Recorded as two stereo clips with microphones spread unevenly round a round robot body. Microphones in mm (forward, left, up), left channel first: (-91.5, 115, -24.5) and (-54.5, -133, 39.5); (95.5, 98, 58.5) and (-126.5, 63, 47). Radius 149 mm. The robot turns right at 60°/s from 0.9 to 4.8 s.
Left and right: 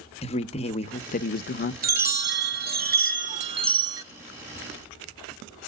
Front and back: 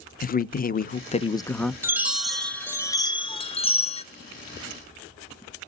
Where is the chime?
115° right, 1.1 m; by 4.0 s 15° left, 1.1 m.